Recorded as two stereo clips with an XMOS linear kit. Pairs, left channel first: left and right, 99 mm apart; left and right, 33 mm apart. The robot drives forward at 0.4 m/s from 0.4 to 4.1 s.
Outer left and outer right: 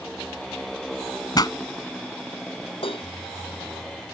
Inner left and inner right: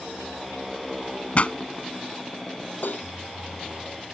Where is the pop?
45° left (ahead or behind); by 1.5 s 40° left (ahead or behind).